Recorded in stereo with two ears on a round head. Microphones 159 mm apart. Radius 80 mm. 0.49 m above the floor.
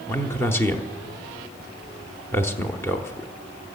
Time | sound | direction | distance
0.1 | a man speaking | 15° left (ahead or behind) | 0.9 m